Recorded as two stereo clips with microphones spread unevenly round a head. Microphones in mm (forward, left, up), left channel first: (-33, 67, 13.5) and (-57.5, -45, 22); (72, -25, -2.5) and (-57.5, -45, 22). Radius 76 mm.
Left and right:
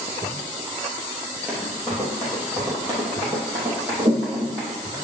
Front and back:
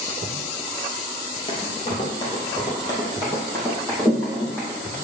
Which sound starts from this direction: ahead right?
Running footsteps, at 1.5 s.